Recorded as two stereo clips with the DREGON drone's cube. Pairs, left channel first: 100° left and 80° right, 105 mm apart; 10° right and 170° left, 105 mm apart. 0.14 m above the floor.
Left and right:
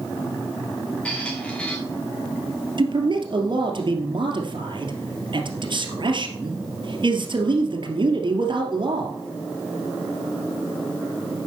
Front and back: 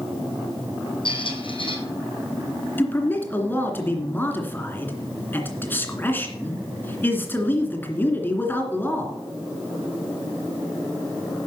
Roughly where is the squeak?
Ahead.